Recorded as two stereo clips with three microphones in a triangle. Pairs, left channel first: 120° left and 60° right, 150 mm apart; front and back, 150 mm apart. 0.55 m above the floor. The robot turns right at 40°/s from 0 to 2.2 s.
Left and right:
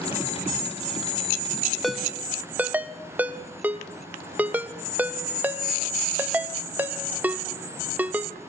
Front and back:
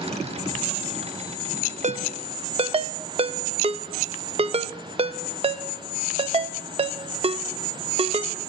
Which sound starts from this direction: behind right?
A ringtone, at 1.8 s.